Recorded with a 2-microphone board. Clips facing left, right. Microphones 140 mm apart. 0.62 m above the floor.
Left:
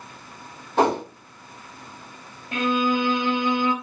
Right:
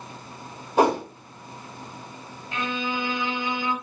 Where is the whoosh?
10° right (ahead or behind), 1.7 m.